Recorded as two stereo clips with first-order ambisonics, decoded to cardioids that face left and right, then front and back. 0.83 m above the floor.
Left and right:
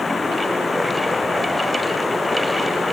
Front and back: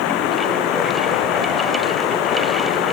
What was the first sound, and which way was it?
Running water, 15° left.